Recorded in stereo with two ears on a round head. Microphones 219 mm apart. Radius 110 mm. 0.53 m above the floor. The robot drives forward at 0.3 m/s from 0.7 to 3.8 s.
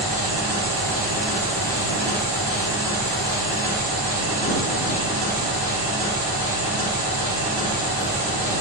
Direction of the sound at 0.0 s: 75° right (ahead or behind).